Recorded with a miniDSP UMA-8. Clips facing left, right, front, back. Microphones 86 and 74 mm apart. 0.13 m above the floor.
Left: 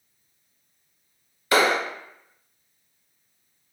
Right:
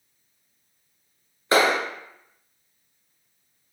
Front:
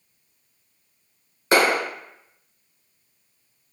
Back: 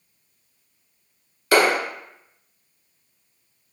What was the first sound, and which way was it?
A clap, 45° right.